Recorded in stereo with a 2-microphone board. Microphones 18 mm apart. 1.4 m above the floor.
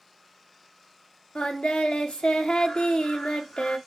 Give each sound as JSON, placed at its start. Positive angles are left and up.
{"t": 1.4, "sound": "singing", "side_deg": 85, "distance_m": 1.1}